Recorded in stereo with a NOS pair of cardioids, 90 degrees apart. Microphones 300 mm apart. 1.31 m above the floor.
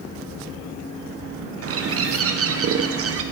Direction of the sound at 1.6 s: 50° right.